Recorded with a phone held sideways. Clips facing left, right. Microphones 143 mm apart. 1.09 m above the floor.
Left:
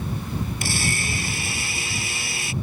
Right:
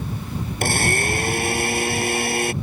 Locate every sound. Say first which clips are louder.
0.6 s a blender: right 6 dB; 55° right (ahead or behind)